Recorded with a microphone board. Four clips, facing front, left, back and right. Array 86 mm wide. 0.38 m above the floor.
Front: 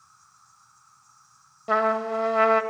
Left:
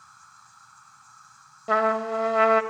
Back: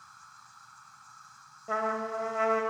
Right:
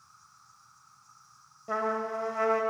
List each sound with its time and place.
0.0 s an insect: 135° left, 1.3 m
1.7 s a trumpet: 45° left, 1.4 m